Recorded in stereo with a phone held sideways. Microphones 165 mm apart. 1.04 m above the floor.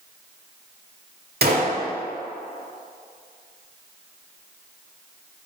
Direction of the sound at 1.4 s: 75° right (ahead or behind).